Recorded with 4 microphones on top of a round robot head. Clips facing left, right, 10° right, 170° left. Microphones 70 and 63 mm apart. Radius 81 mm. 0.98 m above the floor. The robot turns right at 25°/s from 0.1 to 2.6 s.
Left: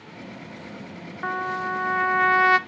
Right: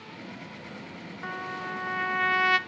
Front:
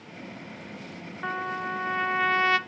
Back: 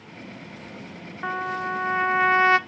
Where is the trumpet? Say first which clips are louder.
Left 8 dB, back 3 dB; 95° left, 0.7 m; by 2.6 s 125° left, 0.7 m.